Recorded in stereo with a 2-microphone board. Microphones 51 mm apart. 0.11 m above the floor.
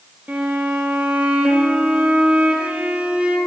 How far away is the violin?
About 2.5 m.